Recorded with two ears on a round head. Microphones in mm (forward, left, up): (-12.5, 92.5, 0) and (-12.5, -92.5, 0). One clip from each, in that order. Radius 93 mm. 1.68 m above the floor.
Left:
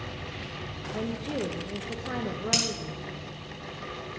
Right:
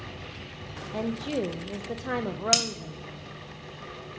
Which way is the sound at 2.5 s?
45° right (ahead or behind).